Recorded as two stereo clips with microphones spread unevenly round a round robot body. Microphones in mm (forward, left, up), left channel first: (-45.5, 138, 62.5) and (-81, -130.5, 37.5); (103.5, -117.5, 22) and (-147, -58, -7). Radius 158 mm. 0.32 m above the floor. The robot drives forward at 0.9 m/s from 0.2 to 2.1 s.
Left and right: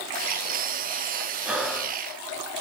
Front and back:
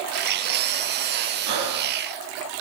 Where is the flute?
No flute in this recording.